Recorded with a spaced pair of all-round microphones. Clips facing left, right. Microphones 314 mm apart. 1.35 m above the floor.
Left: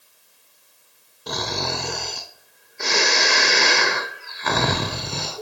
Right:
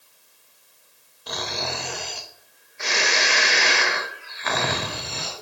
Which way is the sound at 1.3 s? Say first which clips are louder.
Left 4 dB; 50° left (ahead or behind).